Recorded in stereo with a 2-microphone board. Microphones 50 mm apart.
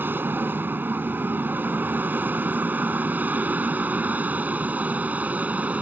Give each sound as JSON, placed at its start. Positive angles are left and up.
{"t": 0.0, "sound": "an aircraft", "side_deg": -40}